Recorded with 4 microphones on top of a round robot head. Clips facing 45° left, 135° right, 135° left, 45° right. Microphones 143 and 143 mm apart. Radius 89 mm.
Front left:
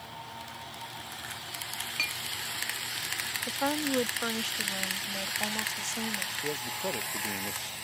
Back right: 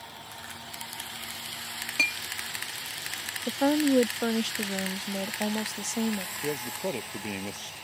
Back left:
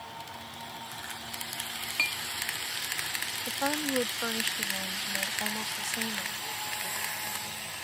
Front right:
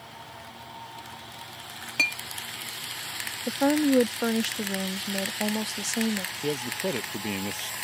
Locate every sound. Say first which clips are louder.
2.0 s a clink: back right 5 dB, front right 7 dB; 95° right
3.5 s a woman speaking: back right 8 dB, front right 10 dB; 85° right
6.4 s a man speaking: back right 2 dB, front right 16 dB; 60° right